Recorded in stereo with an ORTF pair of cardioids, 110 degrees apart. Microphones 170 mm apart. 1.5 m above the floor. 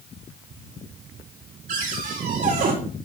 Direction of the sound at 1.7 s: 55° right.